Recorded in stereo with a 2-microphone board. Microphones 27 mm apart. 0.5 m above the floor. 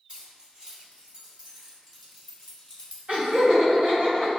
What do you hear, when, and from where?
0.1 s keys jangling: 40° right (ahead or behind), 2.0 m; by 3.0 s 40° left (ahead or behind), 0.8 m
3.1 s laughter: 65° right (ahead or behind), 1.5 m